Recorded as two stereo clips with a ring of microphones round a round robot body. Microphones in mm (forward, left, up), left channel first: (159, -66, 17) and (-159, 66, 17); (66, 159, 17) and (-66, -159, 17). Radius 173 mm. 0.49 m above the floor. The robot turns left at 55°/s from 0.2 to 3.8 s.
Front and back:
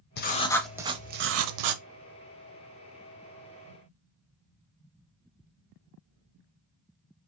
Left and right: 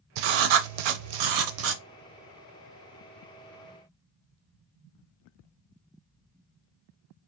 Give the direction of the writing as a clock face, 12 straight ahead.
3 o'clock.